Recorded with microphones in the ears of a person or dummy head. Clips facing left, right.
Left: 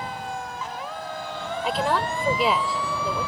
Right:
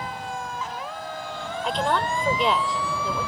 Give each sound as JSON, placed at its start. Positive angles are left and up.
{"t": 1.6, "sound": "a woman speaking", "side_deg": 5}